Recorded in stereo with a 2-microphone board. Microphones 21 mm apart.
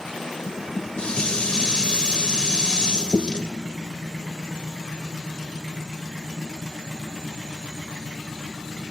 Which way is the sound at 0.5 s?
45° left (ahead or behind).